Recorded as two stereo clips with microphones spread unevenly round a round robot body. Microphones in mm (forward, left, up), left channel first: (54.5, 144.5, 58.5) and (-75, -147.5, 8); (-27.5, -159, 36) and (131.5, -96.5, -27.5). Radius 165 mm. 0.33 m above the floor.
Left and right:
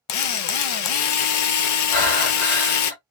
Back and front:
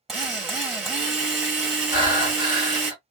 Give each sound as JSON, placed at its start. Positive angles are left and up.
{"t": 0.1, "sound": "a drill", "azimuth_deg": 80, "distance_m": 0.6}
{"t": 1.9, "sound": "breathing", "azimuth_deg": 110, "distance_m": 2.5}